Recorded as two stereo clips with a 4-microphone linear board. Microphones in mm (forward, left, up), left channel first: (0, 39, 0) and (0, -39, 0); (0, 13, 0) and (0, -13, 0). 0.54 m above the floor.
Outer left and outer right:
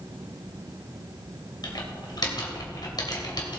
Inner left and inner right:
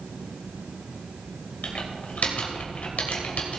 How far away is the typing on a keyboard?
About 2.5 m.